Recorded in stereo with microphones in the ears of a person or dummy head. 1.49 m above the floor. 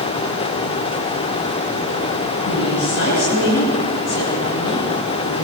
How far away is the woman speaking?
About 10 m.